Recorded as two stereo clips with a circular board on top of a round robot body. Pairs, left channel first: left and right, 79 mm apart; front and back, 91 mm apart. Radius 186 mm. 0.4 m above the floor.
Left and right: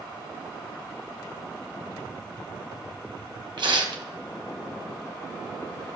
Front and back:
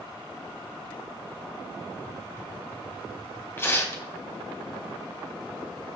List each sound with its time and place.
1.9 s tapping: 65° right, 3.5 m
3.6 s tearing paper: 65° right, 2.0 m